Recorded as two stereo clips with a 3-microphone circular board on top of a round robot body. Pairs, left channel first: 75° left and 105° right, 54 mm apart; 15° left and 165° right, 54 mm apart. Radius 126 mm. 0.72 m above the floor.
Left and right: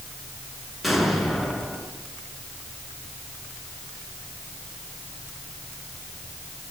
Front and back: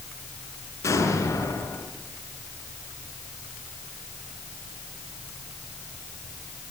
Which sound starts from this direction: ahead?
An explosion, at 0.8 s.